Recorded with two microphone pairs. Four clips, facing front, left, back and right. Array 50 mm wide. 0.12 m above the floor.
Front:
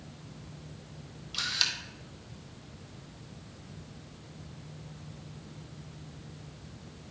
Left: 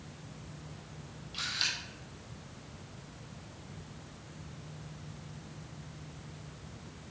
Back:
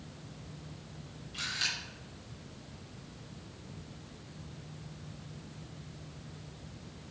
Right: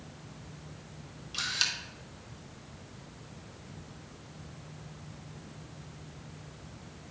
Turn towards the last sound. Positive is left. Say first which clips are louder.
# right 2 dB, front 3 dB
turn(degrees=-35)